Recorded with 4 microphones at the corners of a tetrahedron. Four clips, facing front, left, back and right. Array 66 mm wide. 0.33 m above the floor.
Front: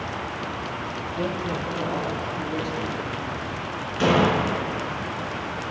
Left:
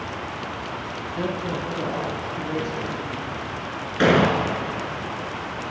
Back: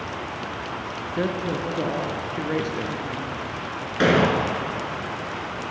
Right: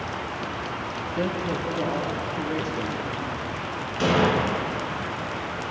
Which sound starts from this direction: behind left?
An explosion, at 4.0 s.